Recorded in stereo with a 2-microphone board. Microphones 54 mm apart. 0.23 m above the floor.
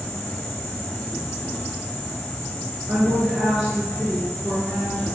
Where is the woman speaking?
15° right (ahead or behind), 3.5 m.